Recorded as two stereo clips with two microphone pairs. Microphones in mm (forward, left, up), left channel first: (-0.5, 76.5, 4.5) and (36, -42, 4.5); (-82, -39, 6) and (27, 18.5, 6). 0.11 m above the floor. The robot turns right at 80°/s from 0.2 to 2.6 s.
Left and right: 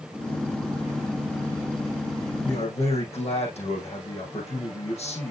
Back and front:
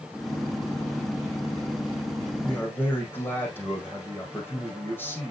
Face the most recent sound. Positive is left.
turn(degrees=135)